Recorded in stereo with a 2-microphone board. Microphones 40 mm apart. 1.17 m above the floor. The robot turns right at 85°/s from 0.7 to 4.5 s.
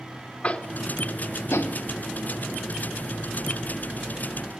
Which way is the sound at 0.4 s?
25° left (ahead or behind).